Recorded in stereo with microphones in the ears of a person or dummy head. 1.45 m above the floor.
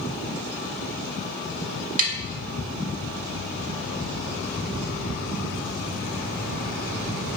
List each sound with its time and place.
2.0 s tapping: 45° right (ahead or behind), 0.8 m